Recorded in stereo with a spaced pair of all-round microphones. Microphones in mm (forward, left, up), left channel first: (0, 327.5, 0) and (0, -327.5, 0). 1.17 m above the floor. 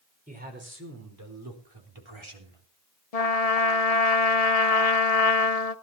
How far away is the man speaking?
About 4.5 m.